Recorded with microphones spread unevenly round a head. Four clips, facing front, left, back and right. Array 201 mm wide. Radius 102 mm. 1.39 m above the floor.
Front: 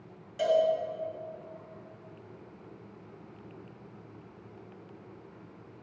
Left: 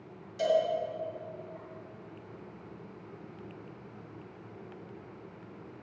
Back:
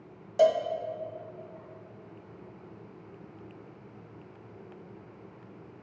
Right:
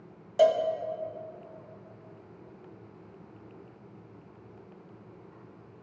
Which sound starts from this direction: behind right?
A cowbell, at 0.4 s.